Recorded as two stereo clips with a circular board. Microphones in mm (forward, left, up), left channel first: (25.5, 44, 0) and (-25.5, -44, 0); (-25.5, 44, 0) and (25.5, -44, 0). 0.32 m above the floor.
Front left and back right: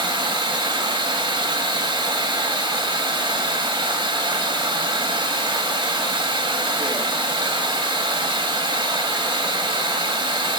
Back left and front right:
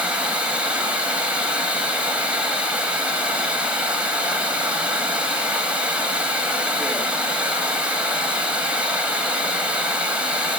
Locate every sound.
0.0 s running water: 135° right, 1.4 m